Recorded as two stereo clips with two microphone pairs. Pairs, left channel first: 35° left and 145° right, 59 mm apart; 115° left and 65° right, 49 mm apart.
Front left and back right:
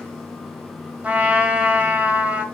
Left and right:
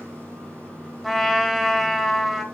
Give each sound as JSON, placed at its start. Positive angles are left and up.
{"t": 0.0, "sound": "running water", "azimuth_deg": -40, "distance_m": 6.0}
{"t": 1.0, "sound": "a trumpet", "azimuth_deg": -150, "distance_m": 1.4}